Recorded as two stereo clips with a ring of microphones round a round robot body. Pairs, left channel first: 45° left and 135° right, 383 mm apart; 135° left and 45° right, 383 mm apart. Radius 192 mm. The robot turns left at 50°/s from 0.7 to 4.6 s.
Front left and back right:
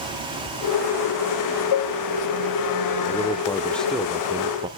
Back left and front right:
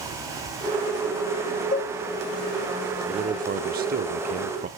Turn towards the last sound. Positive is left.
turn(degrees=-80)